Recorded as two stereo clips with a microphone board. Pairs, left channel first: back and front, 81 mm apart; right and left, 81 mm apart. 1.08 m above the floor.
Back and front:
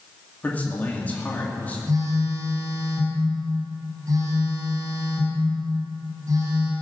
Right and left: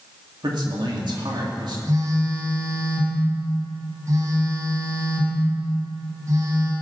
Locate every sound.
0.4 s a man speaking: 110° left, 2 m
1.9 s a phone buzzing: 40° left, 3.5 m